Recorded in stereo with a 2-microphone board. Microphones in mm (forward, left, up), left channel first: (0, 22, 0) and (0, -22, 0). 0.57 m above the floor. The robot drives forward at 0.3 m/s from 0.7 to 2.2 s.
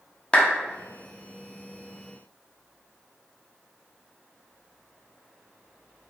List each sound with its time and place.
0.3 s a clap: 25° left (ahead or behind), 0.7 m